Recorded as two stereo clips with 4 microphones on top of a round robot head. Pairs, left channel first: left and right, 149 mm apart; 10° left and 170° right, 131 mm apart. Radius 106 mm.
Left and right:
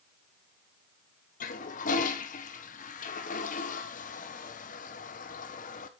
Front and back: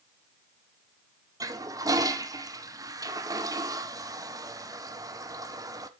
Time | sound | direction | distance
1.4 | a toilet flushing | 130° left | 1.3 m